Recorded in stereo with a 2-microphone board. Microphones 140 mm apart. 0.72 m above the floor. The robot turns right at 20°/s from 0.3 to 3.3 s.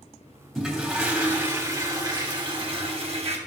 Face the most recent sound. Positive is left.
turn(degrees=-125)